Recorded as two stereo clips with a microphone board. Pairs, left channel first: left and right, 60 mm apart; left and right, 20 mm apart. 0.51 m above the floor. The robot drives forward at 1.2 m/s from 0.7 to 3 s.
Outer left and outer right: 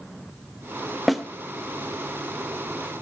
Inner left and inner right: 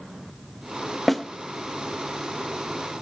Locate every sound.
1.1 s a snare drum: centre (ahead or behind), 1.2 m